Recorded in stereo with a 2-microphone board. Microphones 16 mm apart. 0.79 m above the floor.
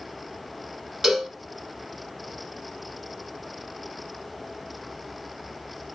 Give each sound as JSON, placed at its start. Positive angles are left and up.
{"t": 1.0, "sound": "a cowbell", "side_deg": -35, "distance_m": 1.9}